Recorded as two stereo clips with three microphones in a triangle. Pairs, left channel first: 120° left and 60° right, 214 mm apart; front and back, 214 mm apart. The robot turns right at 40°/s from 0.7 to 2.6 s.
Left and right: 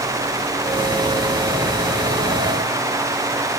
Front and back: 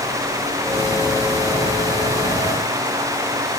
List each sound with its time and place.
Only background noise.